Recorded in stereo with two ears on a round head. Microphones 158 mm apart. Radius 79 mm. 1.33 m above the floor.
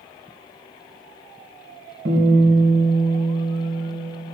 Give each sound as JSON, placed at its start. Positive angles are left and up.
{"t": 2.0, "sound": "a guitar", "side_deg": -70, "distance_m": 4.0}